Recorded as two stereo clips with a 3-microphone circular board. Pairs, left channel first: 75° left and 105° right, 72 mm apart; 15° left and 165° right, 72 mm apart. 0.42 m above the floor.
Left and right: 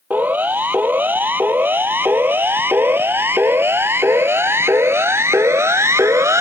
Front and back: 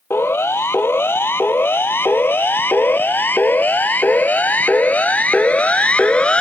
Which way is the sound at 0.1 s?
40° right.